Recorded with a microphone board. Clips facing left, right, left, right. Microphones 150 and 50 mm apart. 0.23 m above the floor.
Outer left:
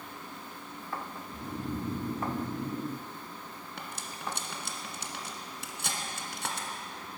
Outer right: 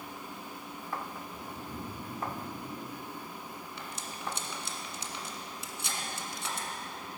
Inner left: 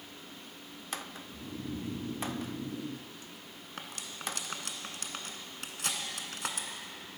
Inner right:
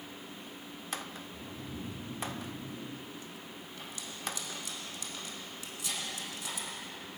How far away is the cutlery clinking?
About 1.5 m.